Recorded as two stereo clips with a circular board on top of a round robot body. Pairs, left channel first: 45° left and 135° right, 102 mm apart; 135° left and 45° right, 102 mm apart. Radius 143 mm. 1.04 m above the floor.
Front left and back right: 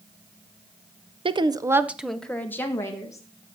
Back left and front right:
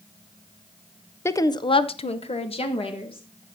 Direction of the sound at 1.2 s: 160° right.